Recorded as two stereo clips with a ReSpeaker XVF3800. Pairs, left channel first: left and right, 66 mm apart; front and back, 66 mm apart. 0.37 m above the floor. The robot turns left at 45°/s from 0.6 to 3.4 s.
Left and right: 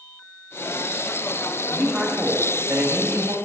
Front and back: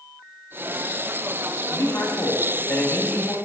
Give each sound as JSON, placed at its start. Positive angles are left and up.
{"t": 1.7, "sound": "a man speaking", "azimuth_deg": 10, "distance_m": 1.7}